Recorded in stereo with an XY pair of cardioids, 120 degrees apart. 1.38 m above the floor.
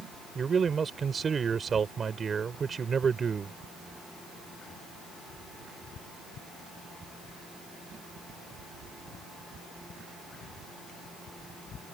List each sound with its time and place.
0.3 s a man speaking: 35° right